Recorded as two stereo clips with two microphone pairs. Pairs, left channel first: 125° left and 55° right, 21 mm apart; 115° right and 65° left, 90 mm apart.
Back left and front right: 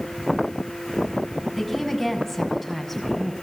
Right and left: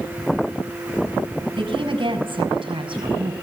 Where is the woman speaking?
40° left, 7 m.